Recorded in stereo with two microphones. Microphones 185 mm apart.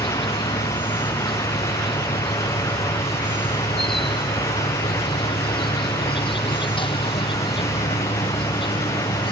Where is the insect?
25° left (ahead or behind).